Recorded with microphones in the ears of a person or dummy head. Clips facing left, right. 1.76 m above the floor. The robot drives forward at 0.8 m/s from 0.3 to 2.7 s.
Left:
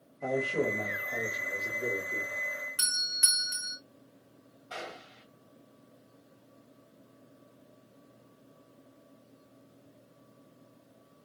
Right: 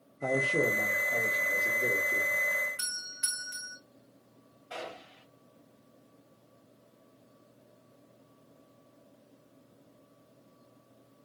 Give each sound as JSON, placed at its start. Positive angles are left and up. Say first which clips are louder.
{"t": 0.2, "sound": "a man speaking", "louder": "right 1 dB", "side_deg": -20, "distance_m": 0.6}
{"t": 2.8, "sound": "a doorbell", "louder": "left 3 dB", "side_deg": 50, "distance_m": 0.9}
{"t": 4.7, "sound": "a gunshot", "louder": "right 1 dB", "side_deg": -10, "distance_m": 3.5}